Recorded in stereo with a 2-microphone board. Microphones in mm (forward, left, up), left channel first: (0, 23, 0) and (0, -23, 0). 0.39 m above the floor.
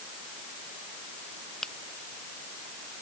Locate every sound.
1.6 s a finger snap: 10° left (ahead or behind)